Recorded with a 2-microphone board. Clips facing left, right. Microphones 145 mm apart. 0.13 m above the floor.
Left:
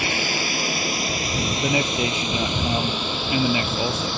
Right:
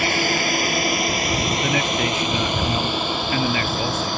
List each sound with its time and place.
0.0 s a drone: 60° right (ahead or behind); by 4.2 s 55° right (ahead or behind)
1.6 s a man speaking: 20° left (ahead or behind)